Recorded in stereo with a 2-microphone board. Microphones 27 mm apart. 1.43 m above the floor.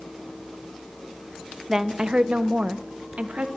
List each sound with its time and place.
1.7 s a woman speaking: 15° right (ahead or behind), 0.8 m; by 3.5 s 65° right (ahead or behind), 2.5 m